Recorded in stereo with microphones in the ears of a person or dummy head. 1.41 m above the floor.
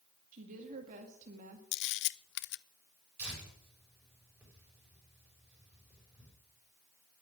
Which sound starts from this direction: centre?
Tearing paper, at 3.2 s.